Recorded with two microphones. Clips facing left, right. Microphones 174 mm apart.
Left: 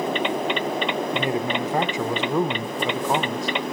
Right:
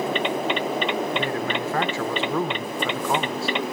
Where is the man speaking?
20° left (ahead or behind), 1.1 m.